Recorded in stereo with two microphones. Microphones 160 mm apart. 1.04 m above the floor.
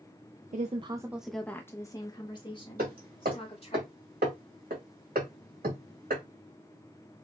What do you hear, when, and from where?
0.5 s a woman speaking: 55° right (ahead or behind), 0.5 m; by 3.8 s 40° left (ahead or behind), 2.5 m
2.8 s hammering: 75° right (ahead or behind), 3 m